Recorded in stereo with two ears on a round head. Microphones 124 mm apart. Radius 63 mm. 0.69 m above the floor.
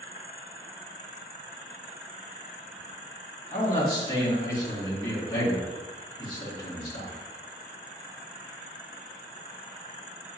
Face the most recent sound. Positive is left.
turn(degrees=30)  # may be behind; listen again after turning